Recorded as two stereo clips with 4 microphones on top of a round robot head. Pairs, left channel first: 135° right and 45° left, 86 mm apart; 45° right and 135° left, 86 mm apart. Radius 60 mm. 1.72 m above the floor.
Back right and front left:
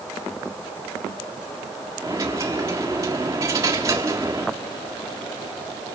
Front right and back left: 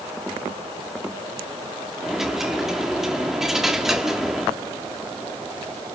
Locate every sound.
2.0 s a dropped coin: 55° left, 1.3 m